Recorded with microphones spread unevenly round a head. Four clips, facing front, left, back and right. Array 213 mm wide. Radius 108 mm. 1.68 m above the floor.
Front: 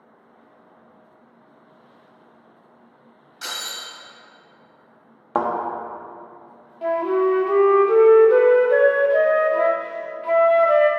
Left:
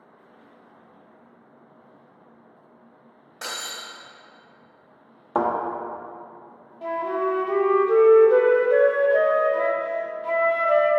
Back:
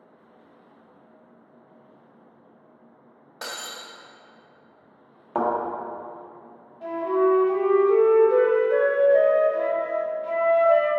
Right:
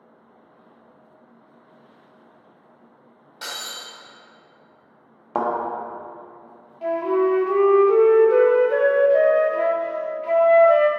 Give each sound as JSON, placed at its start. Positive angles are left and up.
{"t": 3.4, "sound": "breaking glass", "azimuth_deg": -175, "distance_m": 1.9}
{"t": 5.3, "sound": "a thud", "azimuth_deg": -10, "distance_m": 1.3}
{"t": 6.8, "sound": "a flute", "azimuth_deg": 0, "distance_m": 0.7}